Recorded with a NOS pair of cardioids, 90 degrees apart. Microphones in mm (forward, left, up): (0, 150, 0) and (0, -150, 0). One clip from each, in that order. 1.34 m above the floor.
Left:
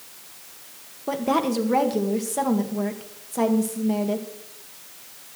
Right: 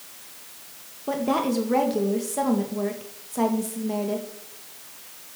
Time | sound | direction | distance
1.1 | a woman speaking | 15° left | 1.9 m